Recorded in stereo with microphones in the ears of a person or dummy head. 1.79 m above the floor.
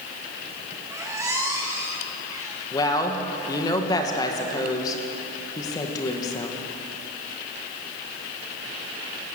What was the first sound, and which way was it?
A squeak, 10° right (ahead or behind).